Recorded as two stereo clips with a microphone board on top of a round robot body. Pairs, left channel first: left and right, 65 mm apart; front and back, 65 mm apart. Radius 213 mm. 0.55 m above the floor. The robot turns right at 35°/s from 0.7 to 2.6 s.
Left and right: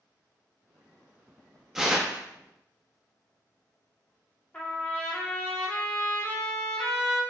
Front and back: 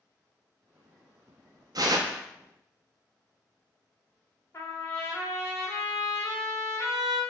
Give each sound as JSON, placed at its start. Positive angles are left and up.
{"t": 1.8, "sound": "tearing paper", "azimuth_deg": -175, "distance_m": 0.6}
{"t": 4.5, "sound": "a trumpet", "azimuth_deg": 20, "distance_m": 1.1}